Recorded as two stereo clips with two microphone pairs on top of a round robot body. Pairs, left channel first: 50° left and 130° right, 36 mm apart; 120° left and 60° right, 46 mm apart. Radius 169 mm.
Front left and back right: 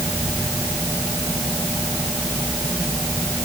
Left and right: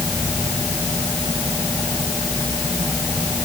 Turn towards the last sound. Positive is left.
No sound to turn to.